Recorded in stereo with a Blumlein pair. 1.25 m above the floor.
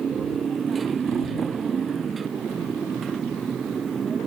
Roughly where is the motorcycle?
Ahead.